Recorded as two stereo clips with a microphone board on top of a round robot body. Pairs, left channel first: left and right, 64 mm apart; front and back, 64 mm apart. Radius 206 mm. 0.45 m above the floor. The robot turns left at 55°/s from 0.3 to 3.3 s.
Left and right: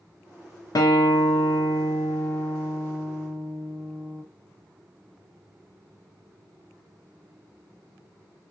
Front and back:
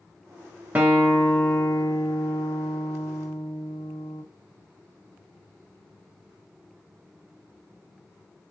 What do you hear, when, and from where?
0.8 s a guitar: 115° left, 0.6 m; by 4.2 s 25° right, 0.6 m